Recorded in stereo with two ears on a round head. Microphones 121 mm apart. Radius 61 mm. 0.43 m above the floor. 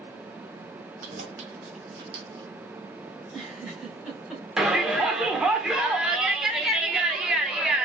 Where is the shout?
5° right (ahead or behind), 0.7 m.